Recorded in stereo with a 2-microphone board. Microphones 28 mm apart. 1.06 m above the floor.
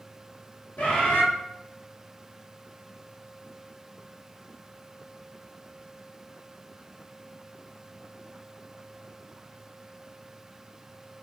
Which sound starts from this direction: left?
A bird, at 0.8 s.